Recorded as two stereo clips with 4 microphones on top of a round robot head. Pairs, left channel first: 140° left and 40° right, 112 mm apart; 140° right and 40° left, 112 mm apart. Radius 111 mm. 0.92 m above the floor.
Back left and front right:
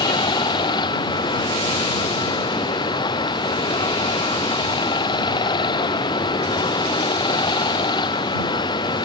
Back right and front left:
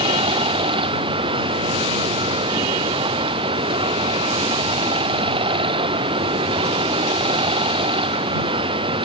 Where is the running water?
85° left.